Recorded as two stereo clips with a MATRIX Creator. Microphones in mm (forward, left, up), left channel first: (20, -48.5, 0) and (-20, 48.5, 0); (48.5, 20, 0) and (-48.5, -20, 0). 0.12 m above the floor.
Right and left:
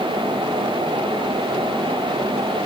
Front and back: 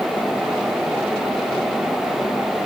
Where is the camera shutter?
No camera shutter in this recording.